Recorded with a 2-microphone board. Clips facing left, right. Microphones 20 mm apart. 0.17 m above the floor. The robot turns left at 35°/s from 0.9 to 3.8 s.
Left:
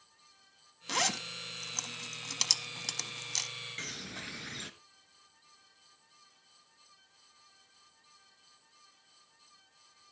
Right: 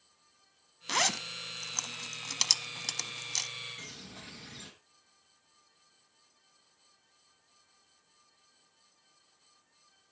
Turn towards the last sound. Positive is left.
turn(degrees=35)  # may be behind; listen again after turning